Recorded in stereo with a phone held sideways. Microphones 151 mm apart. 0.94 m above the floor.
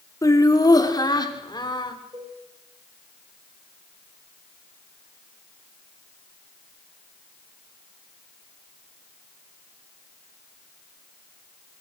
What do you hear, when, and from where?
0.2 s laughter: 20° left (ahead or behind), 2 m; by 2.0 s 30° left (ahead or behind), 3 m
2.1 s a cowbell: 30° right (ahead or behind), 8.5 m